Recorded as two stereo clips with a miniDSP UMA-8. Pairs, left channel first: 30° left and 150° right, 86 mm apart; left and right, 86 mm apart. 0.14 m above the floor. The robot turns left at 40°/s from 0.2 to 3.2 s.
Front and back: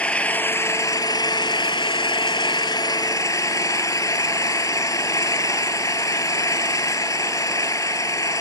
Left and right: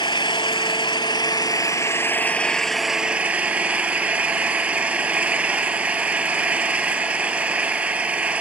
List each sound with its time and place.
0.0 s an engine running: 105° left, 0.7 m; by 8.4 s 15° right, 0.7 m